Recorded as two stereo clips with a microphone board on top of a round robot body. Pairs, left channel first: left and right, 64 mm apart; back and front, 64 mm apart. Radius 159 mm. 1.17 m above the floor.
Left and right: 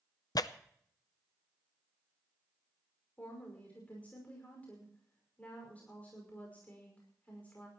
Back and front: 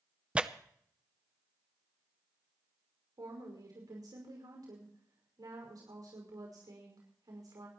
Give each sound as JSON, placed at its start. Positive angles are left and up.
{"t": 0.3, "sound": "tearing paper", "azimuth_deg": 75, "distance_m": 0.8}
{"t": 3.2, "sound": "a woman speaking", "azimuth_deg": 25, "distance_m": 5.5}